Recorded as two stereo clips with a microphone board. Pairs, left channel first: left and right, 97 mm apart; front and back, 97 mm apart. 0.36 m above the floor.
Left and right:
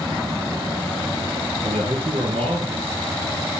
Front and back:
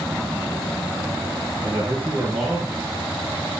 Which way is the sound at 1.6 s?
100° right.